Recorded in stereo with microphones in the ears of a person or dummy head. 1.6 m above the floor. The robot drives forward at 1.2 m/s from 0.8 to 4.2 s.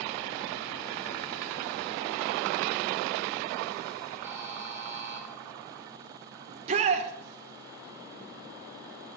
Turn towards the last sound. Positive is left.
turn(degrees=-40)  # may be behind; listen again after turning